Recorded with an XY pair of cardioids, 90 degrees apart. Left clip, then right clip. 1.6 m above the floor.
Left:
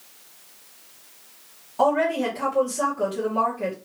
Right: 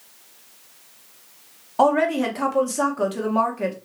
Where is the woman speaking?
70° right, 1.5 m.